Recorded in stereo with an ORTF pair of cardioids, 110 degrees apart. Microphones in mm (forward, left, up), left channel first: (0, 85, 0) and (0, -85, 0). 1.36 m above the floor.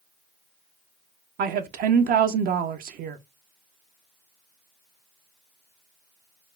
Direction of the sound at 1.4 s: 60° right.